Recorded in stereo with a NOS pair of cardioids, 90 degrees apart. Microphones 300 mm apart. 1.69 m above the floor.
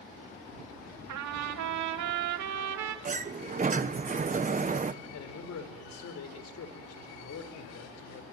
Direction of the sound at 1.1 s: 70° right.